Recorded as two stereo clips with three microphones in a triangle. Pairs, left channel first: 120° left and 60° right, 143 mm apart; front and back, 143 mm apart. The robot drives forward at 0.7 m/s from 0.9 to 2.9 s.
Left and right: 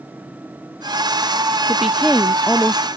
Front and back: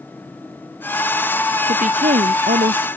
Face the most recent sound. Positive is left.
turn(degrees=-155)